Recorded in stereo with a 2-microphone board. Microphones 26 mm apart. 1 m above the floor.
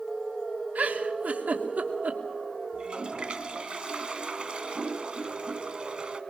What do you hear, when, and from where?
0.8 s a giggle: 75° right (ahead or behind), 3 m
2.7 s a toilet flushing: 35° right (ahead or behind), 2.0 m